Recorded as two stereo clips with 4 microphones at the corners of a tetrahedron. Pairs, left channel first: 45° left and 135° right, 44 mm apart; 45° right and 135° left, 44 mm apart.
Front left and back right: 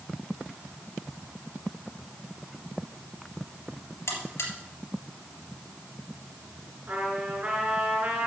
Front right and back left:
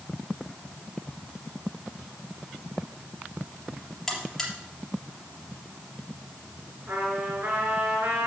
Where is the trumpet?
170° left, 4 m.